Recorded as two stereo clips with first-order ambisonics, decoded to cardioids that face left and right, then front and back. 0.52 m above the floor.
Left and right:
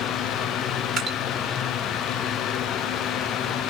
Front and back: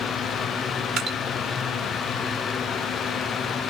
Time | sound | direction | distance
1.0 | dripping | 135° right | 1.7 m